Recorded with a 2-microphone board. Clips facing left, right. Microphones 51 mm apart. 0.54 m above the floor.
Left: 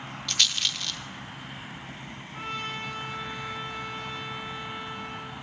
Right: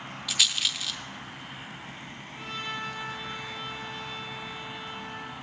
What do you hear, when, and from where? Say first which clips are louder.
0.3 s a rattle: even; 5° right (ahead or behind), 0.6 m
2.3 s a trumpet: left 1 dB; 45° left (ahead or behind), 2.5 m